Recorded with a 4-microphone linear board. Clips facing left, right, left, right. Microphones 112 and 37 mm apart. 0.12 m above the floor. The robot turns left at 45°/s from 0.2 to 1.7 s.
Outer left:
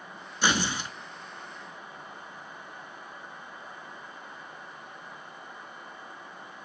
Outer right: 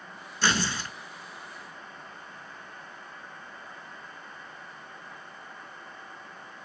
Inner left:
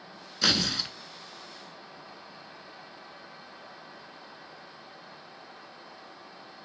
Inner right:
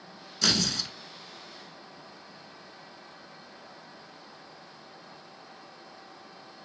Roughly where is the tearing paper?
Centre.